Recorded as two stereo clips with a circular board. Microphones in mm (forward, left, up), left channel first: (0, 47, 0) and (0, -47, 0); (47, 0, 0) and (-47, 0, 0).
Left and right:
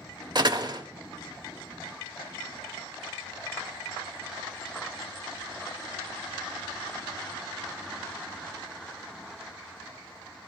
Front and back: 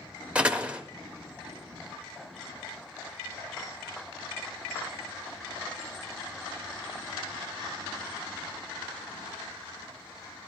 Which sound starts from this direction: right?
A door slam, at 0.3 s.